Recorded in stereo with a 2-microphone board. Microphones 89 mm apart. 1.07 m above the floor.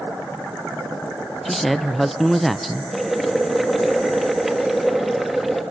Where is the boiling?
Centre (ahead or behind), 0.9 m.